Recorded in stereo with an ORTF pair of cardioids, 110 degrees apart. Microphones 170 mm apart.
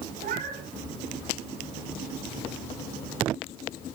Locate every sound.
0.2 s a cat meowing: 65° right, 5 m